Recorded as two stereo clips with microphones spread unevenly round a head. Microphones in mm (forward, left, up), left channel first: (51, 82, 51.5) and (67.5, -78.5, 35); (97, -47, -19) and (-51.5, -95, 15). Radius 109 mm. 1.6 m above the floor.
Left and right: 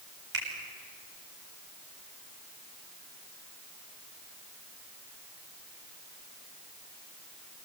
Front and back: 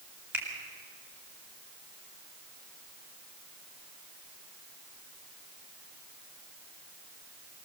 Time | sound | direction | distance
0.3 | a finger snap | 85° right | 7.5 m